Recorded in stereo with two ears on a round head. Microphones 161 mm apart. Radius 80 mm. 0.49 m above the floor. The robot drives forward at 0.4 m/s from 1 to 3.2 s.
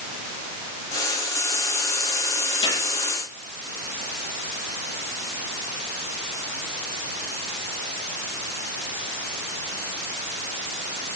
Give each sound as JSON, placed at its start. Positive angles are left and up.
{"t": 2.6, "sound": "a gunshot", "side_deg": 25, "distance_m": 9.5}